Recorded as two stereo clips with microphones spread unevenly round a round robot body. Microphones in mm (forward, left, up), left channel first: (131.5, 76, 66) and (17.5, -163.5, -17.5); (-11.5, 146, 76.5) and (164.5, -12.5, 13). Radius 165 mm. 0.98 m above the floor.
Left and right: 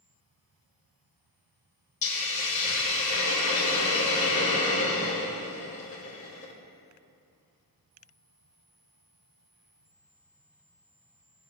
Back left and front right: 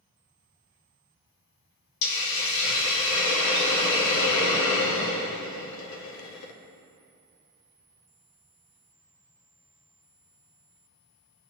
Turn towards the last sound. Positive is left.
turn(degrees=135)